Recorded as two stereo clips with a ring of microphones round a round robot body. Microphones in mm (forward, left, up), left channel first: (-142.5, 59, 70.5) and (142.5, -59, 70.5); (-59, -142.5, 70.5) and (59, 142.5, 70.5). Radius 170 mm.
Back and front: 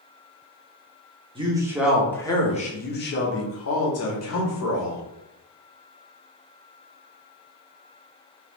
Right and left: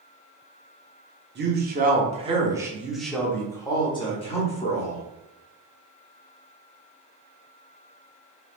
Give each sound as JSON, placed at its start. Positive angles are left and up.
{"t": 1.4, "sound": "a man speaking", "azimuth_deg": 40, "distance_m": 1.1}